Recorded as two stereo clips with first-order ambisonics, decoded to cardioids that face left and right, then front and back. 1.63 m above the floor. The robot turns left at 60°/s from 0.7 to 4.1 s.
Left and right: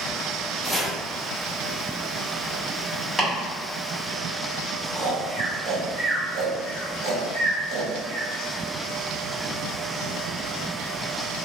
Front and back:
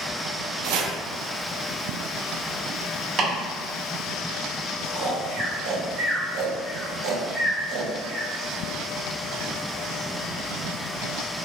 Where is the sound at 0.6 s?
175° left, 0.5 m; by 0.9 s 160° left, 0.5 m.